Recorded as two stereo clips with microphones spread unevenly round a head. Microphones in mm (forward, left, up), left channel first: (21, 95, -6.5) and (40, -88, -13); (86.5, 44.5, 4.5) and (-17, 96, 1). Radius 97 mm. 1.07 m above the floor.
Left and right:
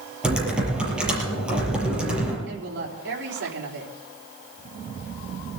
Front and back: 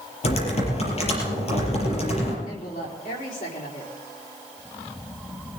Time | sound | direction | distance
0.2 | typing on a keyboard | straight ahead | 6 m
2.5 | a woman speaking | 60° right | 3.5 m